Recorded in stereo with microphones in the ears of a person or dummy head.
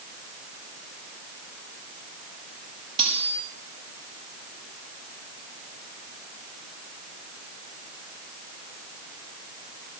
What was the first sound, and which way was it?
Cutlery clinking, 30° right (ahead or behind).